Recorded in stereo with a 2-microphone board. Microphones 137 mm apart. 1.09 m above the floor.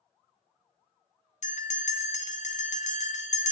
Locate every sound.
1.4 s a bell: 65° left (ahead or behind), 0.7 m